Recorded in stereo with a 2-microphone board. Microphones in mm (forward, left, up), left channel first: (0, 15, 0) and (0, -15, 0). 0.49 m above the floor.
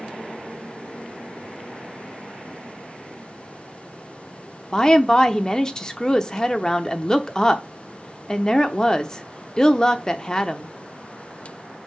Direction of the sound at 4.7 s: 25° left (ahead or behind).